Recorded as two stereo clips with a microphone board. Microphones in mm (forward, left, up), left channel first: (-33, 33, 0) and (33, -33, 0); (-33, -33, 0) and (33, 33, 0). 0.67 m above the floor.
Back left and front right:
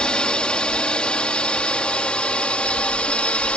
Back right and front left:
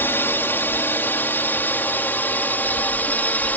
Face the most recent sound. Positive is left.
turn(degrees=-170)